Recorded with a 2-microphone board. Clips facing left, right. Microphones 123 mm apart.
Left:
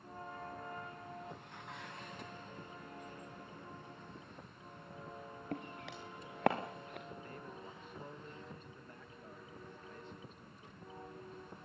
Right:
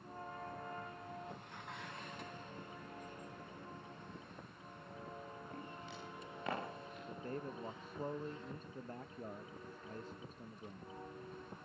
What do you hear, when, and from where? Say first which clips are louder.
5.5 s footsteps: left 4 dB; 75° left (ahead or behind), 4 m; by 7.0 s 65° left (ahead or behind), 3.5 m
7.1 s a man speaking: right 5 dB; 40° right (ahead or behind), 0.6 m